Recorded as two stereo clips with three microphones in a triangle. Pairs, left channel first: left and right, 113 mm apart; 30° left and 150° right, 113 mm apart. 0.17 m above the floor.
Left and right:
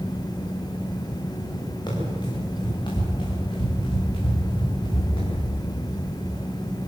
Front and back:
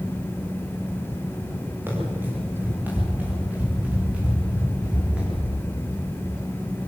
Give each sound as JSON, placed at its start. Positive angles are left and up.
{"t": 1.9, "sound": "running footsteps", "azimuth_deg": 140, "distance_m": 9.5}